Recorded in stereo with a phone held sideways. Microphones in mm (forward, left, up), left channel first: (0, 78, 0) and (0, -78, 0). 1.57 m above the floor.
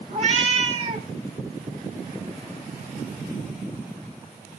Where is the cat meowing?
40° right (ahead or behind), 1.1 m.